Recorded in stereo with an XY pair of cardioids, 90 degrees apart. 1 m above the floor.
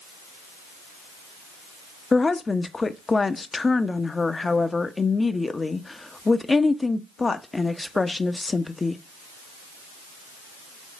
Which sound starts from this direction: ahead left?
A woman speaking, at 2.1 s.